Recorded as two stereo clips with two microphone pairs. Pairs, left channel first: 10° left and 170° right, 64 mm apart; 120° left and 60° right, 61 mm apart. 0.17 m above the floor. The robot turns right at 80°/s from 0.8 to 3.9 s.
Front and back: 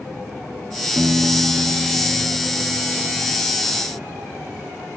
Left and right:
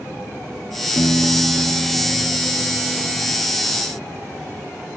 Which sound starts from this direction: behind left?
A piano, at 1.0 s.